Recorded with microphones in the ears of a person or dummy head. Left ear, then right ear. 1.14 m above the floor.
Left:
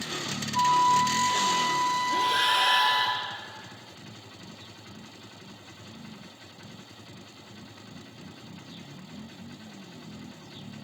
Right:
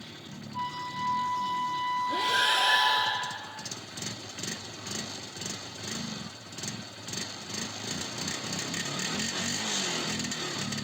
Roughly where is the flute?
Left.